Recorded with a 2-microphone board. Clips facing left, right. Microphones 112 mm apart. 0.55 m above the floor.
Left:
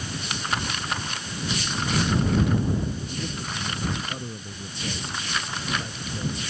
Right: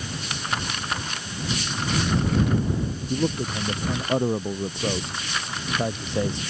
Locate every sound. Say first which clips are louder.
3.1 s a man speaking: right 8 dB; 85° right